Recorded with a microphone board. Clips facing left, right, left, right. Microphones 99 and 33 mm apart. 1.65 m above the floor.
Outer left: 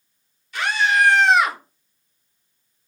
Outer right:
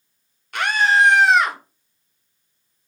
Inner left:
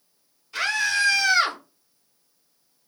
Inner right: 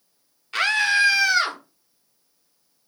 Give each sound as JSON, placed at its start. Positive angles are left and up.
{"t": 0.5, "sound": "a scream", "side_deg": -60, "distance_m": 0.8}